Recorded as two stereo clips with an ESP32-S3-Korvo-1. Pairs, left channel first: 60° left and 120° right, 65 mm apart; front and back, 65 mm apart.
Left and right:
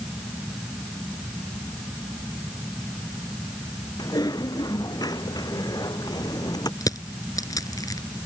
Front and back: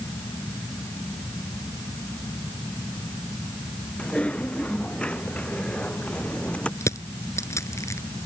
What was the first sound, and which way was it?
Typing on a keyboard, 75° left.